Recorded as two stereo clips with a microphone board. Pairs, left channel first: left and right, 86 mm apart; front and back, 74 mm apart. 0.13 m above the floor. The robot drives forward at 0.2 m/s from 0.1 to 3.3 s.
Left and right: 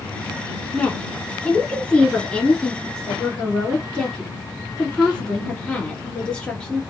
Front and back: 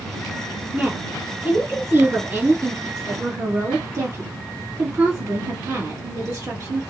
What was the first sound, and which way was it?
A woman speaking, 150° left.